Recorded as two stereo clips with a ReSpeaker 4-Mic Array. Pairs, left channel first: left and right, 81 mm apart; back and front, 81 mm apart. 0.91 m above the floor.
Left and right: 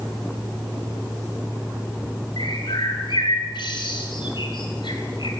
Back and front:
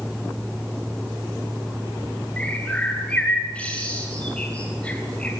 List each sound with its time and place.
2.4 s a bird: 105° left, 3.5 m